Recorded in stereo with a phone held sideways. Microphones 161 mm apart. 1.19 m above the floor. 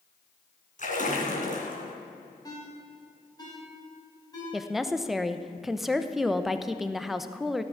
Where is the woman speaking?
Centre (ahead or behind), 0.8 m.